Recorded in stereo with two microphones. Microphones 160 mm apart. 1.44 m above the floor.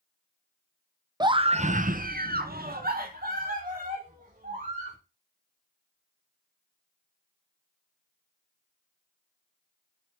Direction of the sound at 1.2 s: 25° right (ahead or behind).